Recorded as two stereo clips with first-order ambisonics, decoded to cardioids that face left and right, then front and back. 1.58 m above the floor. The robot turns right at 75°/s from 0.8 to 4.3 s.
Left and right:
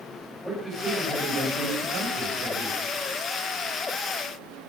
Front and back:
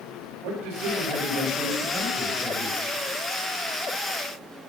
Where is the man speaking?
175° left, 7.5 m; by 2.8 s 35° right, 7.5 m.